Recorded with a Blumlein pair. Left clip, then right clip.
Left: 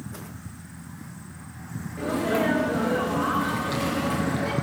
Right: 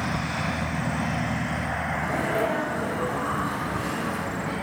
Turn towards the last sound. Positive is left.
turn(degrees=65)